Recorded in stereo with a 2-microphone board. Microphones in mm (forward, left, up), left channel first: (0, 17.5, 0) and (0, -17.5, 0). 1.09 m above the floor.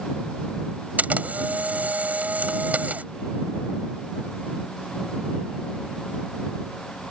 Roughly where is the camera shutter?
Right.